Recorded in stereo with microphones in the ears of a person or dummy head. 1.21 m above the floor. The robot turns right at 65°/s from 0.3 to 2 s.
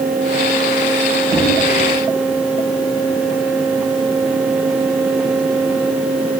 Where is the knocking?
20° right (ahead or behind), 6.5 m; by 1.6 s 5° right (ahead or behind), 6.5 m.